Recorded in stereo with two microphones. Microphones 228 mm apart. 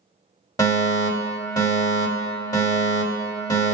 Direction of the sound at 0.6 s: 15° left (ahead or behind).